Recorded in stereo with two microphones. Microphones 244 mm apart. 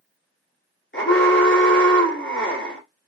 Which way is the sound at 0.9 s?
50° left (ahead or behind).